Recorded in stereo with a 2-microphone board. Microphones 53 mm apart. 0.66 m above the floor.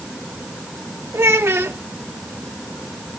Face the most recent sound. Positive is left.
turn(degrees=-50)  # may be behind; listen again after turning